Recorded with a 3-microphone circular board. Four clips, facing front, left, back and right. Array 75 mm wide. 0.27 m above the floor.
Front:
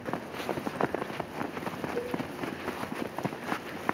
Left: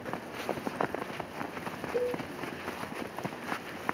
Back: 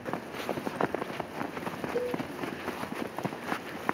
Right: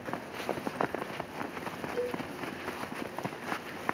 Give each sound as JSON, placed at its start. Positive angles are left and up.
{"t": 1.9, "sound": "a cowbell", "azimuth_deg": 115, "distance_m": 4.5}